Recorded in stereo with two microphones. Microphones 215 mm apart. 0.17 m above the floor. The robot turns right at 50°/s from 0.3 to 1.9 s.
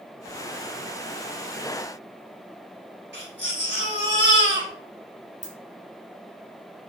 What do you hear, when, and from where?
3.1 s a baby crying: 55° right (ahead or behind), 1.9 m
5.4 s a dropped coin: 35° right (ahead or behind), 0.8 m